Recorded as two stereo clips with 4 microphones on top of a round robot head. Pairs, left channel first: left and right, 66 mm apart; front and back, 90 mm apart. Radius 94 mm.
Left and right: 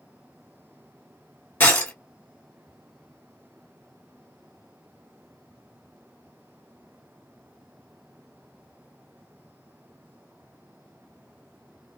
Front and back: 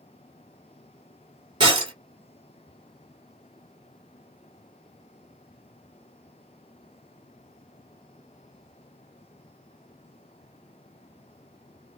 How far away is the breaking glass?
About 1.9 m.